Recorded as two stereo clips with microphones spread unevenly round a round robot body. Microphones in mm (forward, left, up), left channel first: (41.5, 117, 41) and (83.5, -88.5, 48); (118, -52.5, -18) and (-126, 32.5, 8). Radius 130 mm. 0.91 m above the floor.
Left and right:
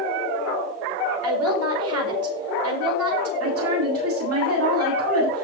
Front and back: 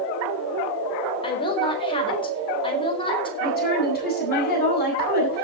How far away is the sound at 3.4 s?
About 9 m.